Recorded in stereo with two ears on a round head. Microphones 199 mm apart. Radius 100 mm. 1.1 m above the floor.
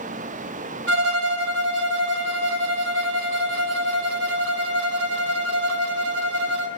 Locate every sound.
0.9 s a violin: 55° right (ahead or behind), 3 m